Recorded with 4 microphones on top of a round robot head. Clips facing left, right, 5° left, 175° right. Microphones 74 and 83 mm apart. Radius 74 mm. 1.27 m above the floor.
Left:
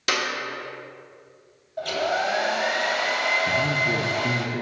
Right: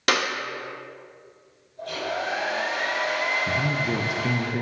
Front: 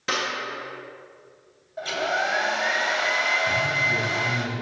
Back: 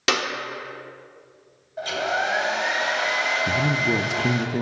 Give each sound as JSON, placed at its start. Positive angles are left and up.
{"t": 0.1, "sound": "a clap", "azimuth_deg": -145, "distance_m": 1.1}
{"t": 1.8, "sound": "a hair dryer", "azimuth_deg": 95, "distance_m": 1.4}
{"t": 3.5, "sound": "a man speaking", "azimuth_deg": -175, "distance_m": 0.7}